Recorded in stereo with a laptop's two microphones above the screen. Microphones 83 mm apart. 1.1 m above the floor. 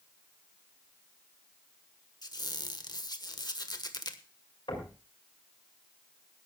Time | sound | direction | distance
2.2 | a squeak | 55° left (ahead or behind) | 1.4 m
4.7 | knocking | 85° left | 5.5 m